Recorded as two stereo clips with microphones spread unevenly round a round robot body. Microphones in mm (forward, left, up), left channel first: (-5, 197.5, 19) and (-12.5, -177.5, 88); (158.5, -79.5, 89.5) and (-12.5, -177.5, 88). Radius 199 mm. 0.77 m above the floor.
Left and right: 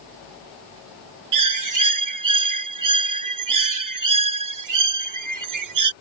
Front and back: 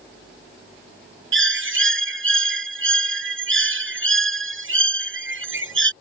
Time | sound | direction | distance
1.3 | a bird | 135° right | ?